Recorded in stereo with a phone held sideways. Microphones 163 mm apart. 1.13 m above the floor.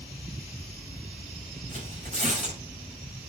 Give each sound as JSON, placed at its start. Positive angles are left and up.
{"t": 1.7, "sound": "tearing paper", "side_deg": -45, "distance_m": 4.5}